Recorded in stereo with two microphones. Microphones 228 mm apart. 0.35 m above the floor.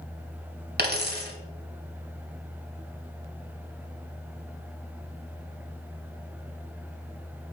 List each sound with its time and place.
0.8 s a dropped coin: 45° right (ahead or behind), 0.7 m